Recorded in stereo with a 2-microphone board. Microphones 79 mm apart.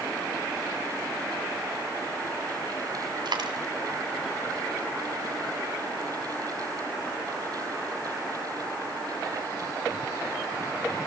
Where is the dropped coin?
70° right (ahead or behind), 2.5 m.